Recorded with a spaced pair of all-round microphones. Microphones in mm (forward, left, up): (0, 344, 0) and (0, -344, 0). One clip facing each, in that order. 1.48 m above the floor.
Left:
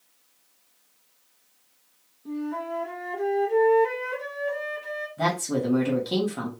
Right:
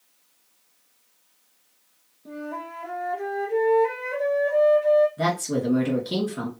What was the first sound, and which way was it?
A flute, 20° right (ahead or behind).